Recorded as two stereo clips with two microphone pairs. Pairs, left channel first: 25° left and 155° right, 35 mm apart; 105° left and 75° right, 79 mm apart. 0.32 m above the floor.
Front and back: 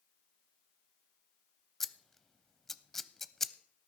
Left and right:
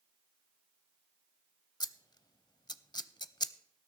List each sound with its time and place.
1.8 s scissors: 105° left, 0.5 m